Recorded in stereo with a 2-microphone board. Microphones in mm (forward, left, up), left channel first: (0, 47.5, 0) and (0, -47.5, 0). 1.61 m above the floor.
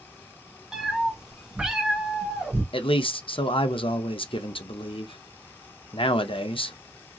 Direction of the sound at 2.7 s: 70° left (ahead or behind).